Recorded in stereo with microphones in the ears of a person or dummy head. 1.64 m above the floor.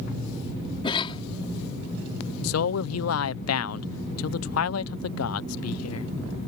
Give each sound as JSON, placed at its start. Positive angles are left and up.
{"t": 0.8, "sound": "a cough", "side_deg": 25}
{"t": 2.4, "sound": "a man speaking", "side_deg": 80}